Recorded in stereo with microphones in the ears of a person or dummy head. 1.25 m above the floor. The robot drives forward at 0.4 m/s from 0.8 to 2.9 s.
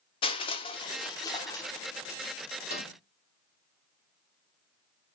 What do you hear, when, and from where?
0.2 s crushing: 25° left (ahead or behind), 0.6 m; by 2.2 s 15° left (ahead or behind), 1.0 m
2.6 s a microwave: 60° left (ahead or behind), 2 m; by 3.0 s 55° left (ahead or behind), 2 m